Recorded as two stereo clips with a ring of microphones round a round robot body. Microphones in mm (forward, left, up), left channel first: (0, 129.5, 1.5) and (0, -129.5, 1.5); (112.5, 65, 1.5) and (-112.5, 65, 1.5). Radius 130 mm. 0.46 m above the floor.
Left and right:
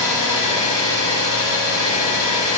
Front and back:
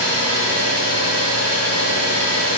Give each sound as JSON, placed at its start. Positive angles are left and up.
{"t": 0.0, "sound": "an engine running", "azimuth_deg": -170, "distance_m": 1.1}